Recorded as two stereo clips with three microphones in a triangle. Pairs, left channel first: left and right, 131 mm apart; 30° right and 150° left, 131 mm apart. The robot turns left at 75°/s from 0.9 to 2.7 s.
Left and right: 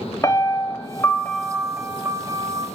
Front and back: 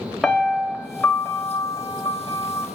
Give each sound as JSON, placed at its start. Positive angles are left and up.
{"t": 0.2, "sound": "a piano", "azimuth_deg": 60, "distance_m": 1.1}